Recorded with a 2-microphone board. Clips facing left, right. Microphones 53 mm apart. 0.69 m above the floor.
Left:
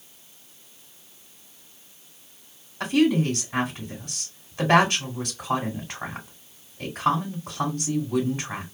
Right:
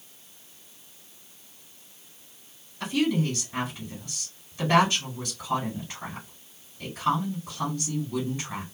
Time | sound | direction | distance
2.8 | a woman speaking | 65° left (ahead or behind) | 2.5 m